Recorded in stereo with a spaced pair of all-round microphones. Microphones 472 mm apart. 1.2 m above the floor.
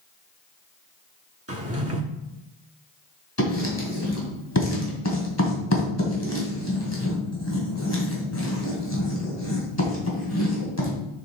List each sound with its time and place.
1.5 s a drawer: 30° right (ahead or behind), 1.1 m
3.4 s writing: 30° left (ahead or behind), 2.5 m